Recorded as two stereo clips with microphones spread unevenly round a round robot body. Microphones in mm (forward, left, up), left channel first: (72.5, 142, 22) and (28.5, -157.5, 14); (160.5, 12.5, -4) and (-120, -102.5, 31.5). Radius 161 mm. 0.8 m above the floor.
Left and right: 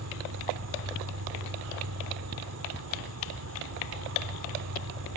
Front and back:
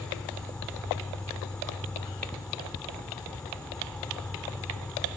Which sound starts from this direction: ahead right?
An insect, at 0.0 s.